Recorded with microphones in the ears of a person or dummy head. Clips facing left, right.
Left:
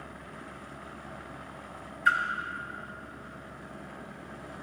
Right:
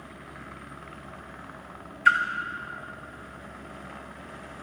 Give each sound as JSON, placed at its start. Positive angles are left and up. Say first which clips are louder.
{"t": 2.0, "sound": "a splash", "louder": "right 5 dB", "side_deg": -40, "distance_m": 0.7}